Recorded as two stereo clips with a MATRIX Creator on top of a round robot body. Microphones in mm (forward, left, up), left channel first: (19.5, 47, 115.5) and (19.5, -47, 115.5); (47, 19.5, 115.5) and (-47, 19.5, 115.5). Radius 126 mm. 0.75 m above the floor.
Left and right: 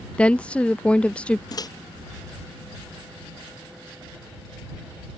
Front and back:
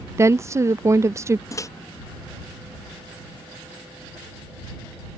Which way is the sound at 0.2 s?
155° left.